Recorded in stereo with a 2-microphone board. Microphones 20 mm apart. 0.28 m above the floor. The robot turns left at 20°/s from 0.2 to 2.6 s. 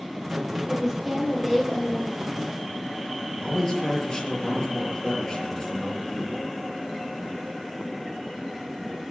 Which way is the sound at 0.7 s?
165° right.